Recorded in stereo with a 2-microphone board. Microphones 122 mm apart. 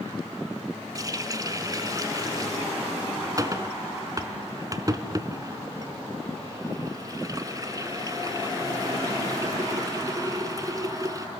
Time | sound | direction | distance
0.9 | a running tap | 30° right (ahead or behind) | 1.3 m